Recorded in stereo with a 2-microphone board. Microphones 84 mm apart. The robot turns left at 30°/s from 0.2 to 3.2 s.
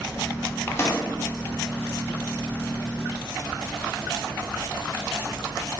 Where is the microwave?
30° left (ahead or behind), 0.6 m; by 1.0 s 40° left (ahead or behind), 0.6 m.